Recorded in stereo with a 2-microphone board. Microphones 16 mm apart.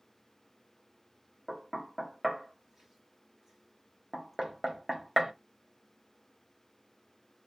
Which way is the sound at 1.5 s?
25° right (ahead or behind).